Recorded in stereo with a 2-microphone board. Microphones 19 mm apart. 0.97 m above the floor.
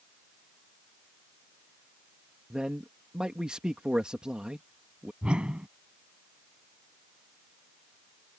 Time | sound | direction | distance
2.5 | a man speaking | 55° right (ahead or behind) | ?
5.2 | a whoosh | 75° right (ahead or behind) | ?